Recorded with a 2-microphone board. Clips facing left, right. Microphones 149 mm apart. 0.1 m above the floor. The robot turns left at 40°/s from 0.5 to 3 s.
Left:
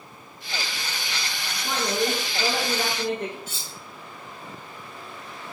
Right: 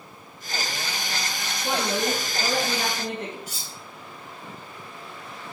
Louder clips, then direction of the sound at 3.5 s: Even; 40° right (ahead or behind).